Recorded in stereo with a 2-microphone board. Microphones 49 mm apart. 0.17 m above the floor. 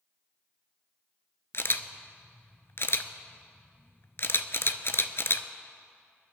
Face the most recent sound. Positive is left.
turn(degrees=55)  # may be behind; listen again after turning